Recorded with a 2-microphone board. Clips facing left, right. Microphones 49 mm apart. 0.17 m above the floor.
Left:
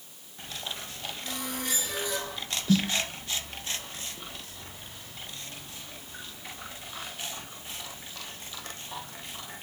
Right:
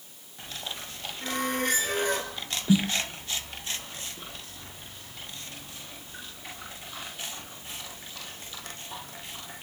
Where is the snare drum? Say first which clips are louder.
Right 2 dB; 15° right (ahead or behind), 1.3 m.